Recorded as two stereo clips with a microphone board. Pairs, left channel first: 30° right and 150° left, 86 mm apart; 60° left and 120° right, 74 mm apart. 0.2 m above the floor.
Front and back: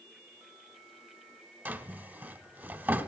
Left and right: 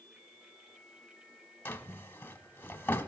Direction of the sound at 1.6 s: 100° left.